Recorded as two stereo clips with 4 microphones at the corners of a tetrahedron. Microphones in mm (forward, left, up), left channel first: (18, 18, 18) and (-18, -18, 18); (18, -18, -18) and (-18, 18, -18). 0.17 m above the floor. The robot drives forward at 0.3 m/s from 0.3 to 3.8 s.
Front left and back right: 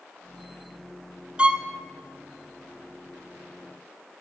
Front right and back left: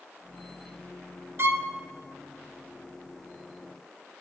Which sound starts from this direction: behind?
A violin, at 1.4 s.